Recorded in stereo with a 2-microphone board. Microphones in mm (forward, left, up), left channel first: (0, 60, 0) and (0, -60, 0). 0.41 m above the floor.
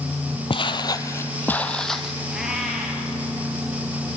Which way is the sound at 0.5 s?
45° left (ahead or behind).